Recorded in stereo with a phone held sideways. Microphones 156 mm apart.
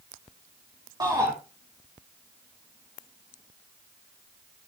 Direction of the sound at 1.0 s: 25° right (ahead or behind).